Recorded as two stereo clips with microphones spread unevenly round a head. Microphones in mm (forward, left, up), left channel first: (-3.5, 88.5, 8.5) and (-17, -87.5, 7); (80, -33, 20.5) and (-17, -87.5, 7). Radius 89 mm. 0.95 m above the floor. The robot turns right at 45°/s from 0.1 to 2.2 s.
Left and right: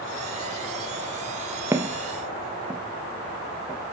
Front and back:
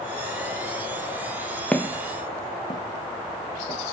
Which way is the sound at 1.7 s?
30° right.